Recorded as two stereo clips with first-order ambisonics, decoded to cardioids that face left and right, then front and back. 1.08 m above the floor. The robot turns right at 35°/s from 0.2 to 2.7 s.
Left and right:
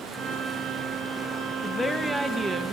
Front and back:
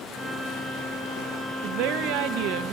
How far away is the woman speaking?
About 1.2 m.